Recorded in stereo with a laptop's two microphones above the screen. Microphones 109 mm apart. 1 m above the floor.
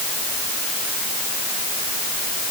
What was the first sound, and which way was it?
Only background noise.